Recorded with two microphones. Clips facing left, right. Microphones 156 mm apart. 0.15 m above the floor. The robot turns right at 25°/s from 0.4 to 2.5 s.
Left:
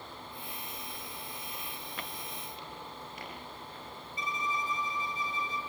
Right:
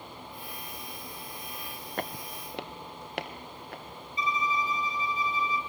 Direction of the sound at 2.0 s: 55° right (ahead or behind).